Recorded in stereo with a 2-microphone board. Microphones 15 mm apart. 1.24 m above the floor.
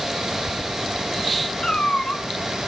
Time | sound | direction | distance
1.6 | a cat meowing | 80° left | 3 m